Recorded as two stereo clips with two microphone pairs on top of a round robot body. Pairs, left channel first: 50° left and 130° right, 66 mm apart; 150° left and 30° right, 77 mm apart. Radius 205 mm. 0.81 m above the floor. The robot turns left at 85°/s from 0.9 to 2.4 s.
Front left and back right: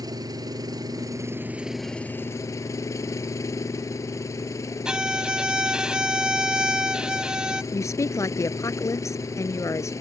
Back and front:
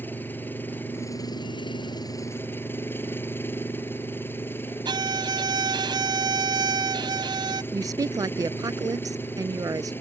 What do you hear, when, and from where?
0.0 s an engine running: 145° right; by 10.0 s 90° left
4.8 s a violin: 55° right
7.7 s a woman speaking: 10° left